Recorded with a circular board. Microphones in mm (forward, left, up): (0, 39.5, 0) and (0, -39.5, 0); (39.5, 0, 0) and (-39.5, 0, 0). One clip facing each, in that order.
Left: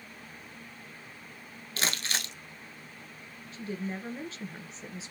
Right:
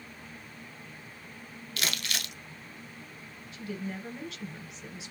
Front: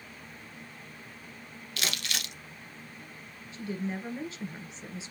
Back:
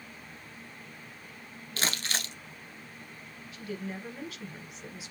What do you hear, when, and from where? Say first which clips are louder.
1.8 s crumpling: left 2 dB, back 2 dB; 135° left, 1.0 m
3.5 s a woman speaking: left 1 dB, front 4 dB; 50° left, 1.7 m